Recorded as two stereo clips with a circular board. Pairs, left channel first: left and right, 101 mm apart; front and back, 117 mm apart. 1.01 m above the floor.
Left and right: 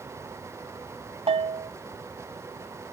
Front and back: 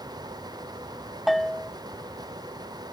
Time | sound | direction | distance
1.3 | a bell | 90° right | ?